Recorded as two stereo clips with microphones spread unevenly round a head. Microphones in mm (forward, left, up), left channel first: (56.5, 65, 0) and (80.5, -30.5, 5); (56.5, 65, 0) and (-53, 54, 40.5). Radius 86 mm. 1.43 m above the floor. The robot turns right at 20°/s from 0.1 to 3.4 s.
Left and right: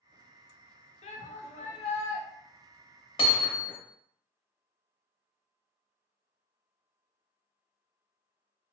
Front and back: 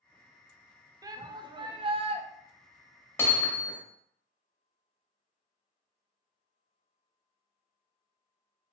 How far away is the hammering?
About 1.1 m.